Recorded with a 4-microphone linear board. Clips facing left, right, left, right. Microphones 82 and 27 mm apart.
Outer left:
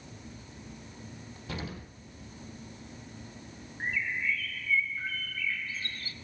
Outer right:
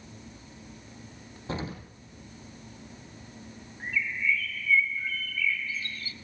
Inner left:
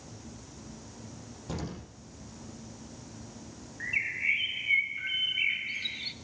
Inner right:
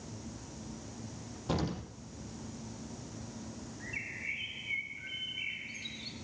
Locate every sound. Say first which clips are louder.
1.5 s an explosion: outer right 5 dB, inner right 4 dB; 30° right (ahead or behind), 3 m
3.8 s a bird: outer right 2 dB, inner left 11 dB; 45° left (ahead or behind), 1.3 m